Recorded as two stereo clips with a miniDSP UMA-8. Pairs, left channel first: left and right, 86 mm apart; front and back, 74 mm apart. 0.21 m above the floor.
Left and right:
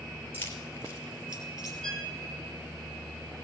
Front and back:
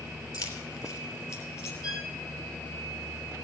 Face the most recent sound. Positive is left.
turn(degrees=10)